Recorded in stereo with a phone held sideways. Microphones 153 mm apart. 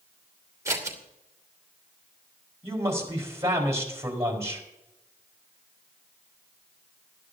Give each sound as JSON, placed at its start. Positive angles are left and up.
{"t": 0.7, "sound": "scissors", "side_deg": -20, "distance_m": 2.5}
{"t": 2.6, "sound": "a man speaking", "side_deg": -15, "distance_m": 4.0}